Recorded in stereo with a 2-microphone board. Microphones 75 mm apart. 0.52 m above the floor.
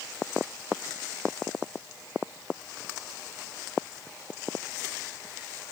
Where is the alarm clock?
No alarm clock in this recording.